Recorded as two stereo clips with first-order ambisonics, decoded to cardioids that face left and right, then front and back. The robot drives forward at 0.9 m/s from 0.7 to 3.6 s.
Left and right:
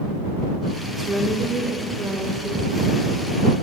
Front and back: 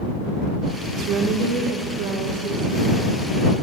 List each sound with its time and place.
1.0 s a woman speaking: 160° right, 0.7 m; by 3.1 s 175° right, 2.5 m